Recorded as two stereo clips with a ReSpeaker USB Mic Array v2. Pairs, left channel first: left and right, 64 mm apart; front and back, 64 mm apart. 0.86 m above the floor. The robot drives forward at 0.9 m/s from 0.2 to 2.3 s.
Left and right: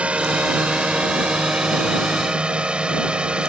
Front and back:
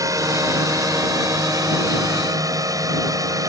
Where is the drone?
160° right; by 3.5 s 165° right.